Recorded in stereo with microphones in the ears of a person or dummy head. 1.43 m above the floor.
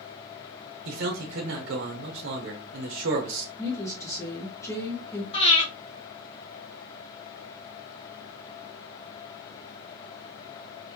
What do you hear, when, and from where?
0.8 s a man speaking: 70° right (ahead or behind), 0.9 m
3.6 s a woman speaking: 15° left (ahead or behind), 1.0 m
5.3 s breathing: 30° left (ahead or behind), 1.1 m